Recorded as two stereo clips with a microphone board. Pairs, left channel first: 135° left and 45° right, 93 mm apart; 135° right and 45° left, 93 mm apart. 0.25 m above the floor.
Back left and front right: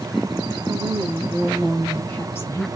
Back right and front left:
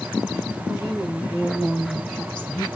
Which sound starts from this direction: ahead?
A woman speaking, at 0.7 s.